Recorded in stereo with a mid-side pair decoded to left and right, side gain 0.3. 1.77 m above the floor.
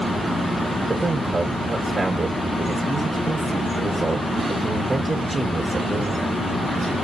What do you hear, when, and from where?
0.9 s a man speaking: 40° right, 1.9 m